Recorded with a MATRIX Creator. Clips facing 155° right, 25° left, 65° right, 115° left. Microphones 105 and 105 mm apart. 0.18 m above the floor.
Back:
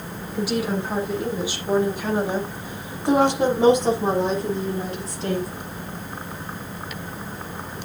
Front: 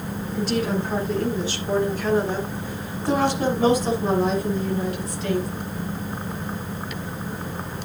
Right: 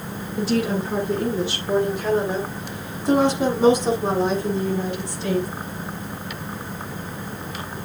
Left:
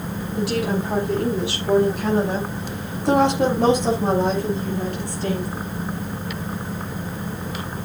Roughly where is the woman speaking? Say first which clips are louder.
Even, right 1 dB; behind left.